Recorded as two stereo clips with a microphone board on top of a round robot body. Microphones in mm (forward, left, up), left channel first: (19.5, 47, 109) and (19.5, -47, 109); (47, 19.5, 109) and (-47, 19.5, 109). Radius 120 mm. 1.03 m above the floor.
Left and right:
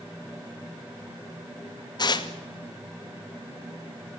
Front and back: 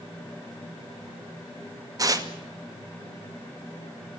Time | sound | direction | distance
2.0 | tearing paper | 130° left | 2 m